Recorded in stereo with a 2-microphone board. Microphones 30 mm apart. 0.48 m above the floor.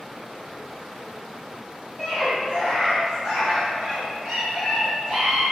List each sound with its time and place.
2.0 s a scream: 15° right (ahead or behind), 3.5 m; by 5.4 s 40° right (ahead or behind), 5.5 m